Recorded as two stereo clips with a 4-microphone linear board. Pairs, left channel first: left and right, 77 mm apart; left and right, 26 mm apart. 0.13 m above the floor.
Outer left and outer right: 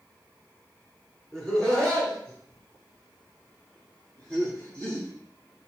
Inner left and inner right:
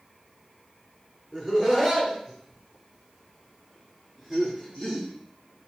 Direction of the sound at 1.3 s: 10° left (ahead or behind).